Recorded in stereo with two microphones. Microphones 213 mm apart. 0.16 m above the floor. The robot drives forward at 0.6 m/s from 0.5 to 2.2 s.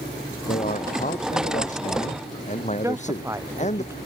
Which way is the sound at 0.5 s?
40° left (ahead or behind).